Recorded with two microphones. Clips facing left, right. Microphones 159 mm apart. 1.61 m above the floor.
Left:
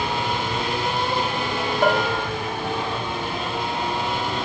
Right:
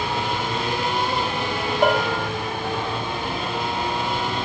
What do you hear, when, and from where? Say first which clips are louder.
1.8 s a bell: right 1 dB; 5° right (ahead or behind), 2.5 m